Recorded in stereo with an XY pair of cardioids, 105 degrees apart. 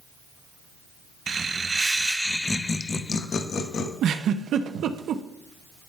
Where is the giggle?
70° right, 0.6 m.